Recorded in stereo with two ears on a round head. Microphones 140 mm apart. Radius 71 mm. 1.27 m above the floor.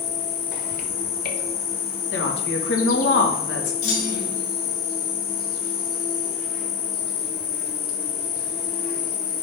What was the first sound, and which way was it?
An insect, 60° left (ahead or behind).